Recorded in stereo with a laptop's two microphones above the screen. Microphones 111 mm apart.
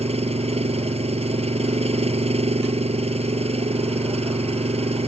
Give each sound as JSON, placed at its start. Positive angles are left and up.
{"t": 0.0, "sound": "an engine running", "side_deg": -70}